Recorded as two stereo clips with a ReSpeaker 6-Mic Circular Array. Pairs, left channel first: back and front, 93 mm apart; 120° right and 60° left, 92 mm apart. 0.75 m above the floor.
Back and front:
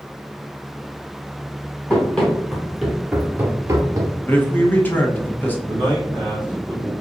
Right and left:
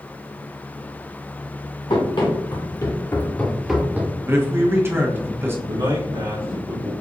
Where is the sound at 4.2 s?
115° left, 1.0 m.